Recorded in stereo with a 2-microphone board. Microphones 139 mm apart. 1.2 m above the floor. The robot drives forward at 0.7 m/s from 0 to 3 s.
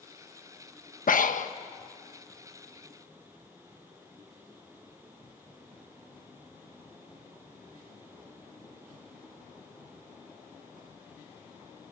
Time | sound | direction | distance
1.1 | breathing | 75° left (ahead or behind) | 1.0 m